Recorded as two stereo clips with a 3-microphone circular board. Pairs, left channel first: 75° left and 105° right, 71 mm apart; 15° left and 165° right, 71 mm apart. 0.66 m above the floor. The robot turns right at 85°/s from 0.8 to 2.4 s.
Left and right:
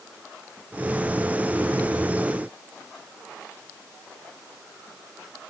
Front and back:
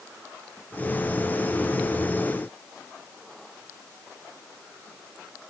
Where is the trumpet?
I don't hear a trumpet.